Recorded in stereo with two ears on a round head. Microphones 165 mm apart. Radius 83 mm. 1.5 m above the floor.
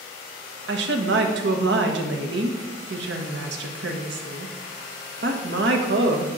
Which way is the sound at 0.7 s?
70° right (ahead or behind).